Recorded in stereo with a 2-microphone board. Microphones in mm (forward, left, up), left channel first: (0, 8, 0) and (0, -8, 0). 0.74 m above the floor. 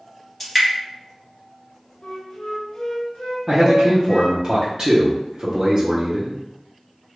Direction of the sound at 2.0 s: 70° left (ahead or behind).